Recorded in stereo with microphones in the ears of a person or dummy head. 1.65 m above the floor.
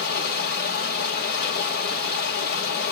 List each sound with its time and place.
0.0 s running water: 55° left (ahead or behind), 1.9 m